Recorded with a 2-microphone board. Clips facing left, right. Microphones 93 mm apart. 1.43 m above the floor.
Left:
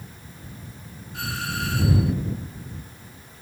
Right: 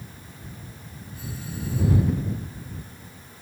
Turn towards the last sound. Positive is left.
turn(degrees=90)